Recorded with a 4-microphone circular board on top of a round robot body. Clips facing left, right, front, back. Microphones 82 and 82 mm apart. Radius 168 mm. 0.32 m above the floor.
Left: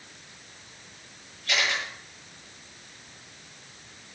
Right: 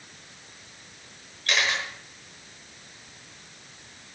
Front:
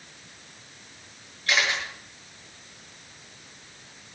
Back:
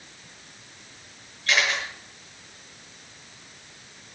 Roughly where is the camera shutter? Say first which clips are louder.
Right 2 dB, back 1 dB; right.